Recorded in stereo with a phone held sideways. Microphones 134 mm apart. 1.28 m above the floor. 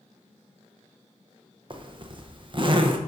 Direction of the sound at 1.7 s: 40° right (ahead or behind).